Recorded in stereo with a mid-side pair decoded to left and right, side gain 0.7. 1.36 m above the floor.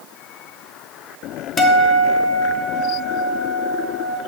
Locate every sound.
1.6 s a guitar: 20° left, 0.9 m